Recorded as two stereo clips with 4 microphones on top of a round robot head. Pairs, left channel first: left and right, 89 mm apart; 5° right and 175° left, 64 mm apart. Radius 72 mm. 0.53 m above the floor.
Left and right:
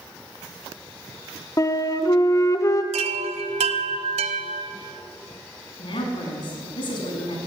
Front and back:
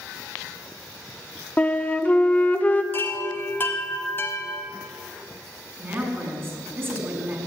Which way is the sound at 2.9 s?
75° right.